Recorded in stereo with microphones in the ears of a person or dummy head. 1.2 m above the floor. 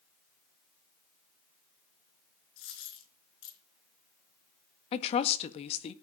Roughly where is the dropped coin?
Left.